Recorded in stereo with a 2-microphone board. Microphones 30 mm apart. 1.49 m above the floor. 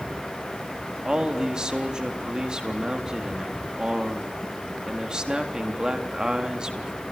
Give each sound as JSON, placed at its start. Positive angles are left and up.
{"t": 1.1, "sound": "a man speaking", "side_deg": -25, "distance_m": 3.5}